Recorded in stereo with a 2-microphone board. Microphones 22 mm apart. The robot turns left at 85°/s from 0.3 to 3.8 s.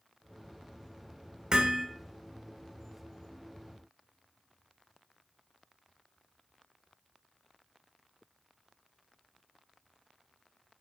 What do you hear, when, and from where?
1.5 s hammering: 45° right (ahead or behind), 1.9 m; by 1.9 s 20° right (ahead or behind), 1.9 m